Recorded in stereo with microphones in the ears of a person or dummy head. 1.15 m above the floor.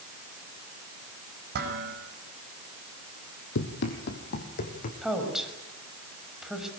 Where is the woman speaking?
5° right (ahead or behind), 5.5 m.